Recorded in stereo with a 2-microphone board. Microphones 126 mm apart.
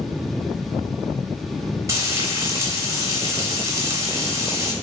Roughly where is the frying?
Right.